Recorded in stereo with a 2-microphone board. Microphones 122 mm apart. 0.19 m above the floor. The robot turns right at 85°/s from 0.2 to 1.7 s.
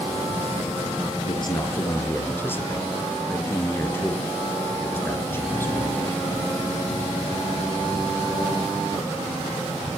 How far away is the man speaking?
About 2.5 m.